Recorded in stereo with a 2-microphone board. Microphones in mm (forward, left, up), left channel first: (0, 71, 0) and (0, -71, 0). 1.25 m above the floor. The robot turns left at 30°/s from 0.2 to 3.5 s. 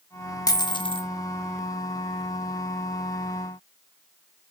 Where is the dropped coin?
25° left (ahead or behind), 0.9 m; by 1.1 s 40° left (ahead or behind), 0.9 m.